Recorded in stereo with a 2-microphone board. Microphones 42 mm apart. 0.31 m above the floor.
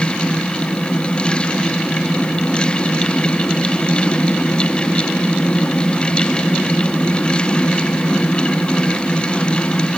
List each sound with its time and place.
Only background noise.